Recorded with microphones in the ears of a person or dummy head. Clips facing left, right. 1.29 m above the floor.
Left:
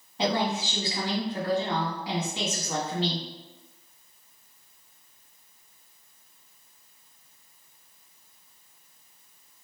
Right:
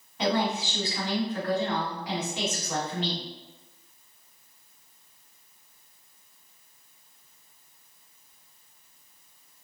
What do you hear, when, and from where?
0.2 s a woman speaking: 30° left (ahead or behind), 1.0 m